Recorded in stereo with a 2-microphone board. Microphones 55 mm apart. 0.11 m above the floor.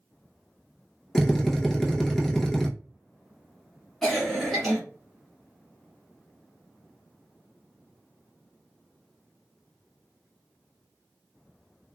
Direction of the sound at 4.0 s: 5° left (ahead or behind).